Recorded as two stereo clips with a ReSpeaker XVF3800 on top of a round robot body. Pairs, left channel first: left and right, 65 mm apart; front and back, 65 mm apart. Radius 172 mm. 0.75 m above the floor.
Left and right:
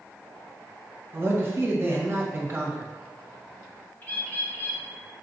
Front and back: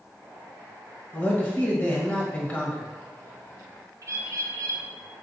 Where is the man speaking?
55° right, 1.1 m.